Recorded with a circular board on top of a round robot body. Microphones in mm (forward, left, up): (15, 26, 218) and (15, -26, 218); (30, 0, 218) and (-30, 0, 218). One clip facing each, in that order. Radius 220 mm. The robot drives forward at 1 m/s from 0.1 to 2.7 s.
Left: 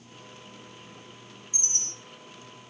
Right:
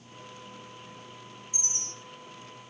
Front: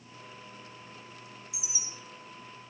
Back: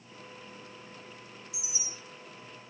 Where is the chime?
80° left, 5.5 m; by 1.9 s 85° left, 5.5 m.